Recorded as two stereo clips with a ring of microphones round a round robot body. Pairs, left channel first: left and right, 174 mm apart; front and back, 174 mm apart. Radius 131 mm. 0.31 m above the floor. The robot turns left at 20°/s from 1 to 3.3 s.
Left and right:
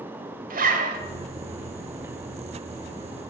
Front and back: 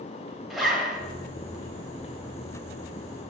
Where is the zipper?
90° right, 1.3 m.